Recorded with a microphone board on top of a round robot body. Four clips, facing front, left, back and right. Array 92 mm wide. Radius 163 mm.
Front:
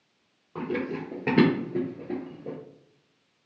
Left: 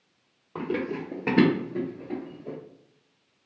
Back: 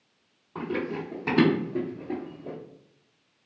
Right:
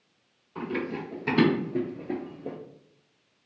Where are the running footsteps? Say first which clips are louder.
Left 2 dB, even; 75° left, 1.0 m; by 2.6 s 75° right, 1.0 m.